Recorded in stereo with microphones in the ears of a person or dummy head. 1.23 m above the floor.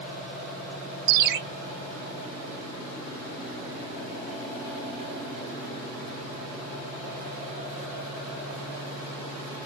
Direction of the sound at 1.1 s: 55° right (ahead or behind).